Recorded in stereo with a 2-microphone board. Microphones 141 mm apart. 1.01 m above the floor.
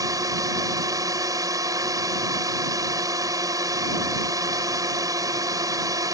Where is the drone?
25° right (ahead or behind).